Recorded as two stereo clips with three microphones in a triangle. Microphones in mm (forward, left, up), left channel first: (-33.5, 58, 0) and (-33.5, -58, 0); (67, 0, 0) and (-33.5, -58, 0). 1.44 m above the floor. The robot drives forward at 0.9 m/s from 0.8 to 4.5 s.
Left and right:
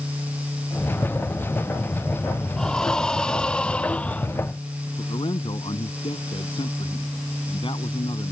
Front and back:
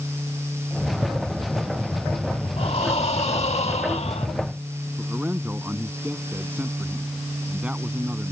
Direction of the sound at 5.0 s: 130° left.